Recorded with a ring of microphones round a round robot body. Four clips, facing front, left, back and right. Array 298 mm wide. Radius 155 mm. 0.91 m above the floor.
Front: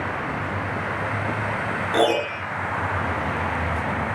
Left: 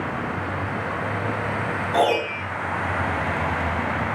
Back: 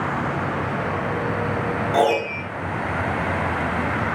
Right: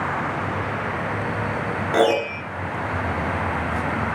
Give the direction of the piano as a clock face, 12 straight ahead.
2 o'clock.